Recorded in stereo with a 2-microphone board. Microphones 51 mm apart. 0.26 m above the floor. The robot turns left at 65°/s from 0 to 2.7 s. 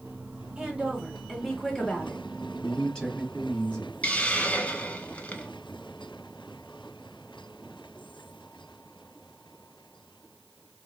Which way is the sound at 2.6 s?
20° left (ahead or behind).